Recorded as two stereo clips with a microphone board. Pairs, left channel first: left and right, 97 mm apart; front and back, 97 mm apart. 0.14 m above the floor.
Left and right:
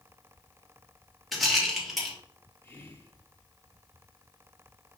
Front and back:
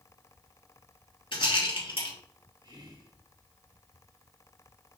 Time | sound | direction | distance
1.3 | a rattle | straight ahead | 3 m
2.6 | whispering | 155° left | 3 m